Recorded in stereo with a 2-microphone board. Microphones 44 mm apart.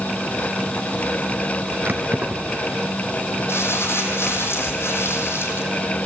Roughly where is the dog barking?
No dog barking in this recording.